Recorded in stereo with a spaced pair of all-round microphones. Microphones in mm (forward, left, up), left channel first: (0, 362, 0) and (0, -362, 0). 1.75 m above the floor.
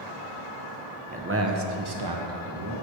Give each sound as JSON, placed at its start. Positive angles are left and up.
{"t": 1.1, "sound": "a man speaking", "side_deg": -10, "distance_m": 1.1}